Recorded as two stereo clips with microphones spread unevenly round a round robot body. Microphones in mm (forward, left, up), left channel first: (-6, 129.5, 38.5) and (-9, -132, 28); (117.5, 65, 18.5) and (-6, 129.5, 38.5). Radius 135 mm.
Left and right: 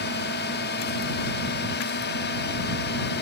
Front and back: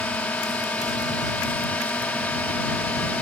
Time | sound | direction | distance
0.0 | a drone | 50° left | ?